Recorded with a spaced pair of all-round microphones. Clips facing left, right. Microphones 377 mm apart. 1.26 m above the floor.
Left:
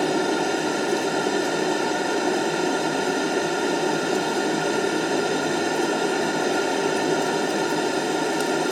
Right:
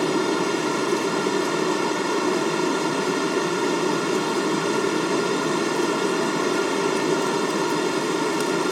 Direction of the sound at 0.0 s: 10° right (ahead or behind).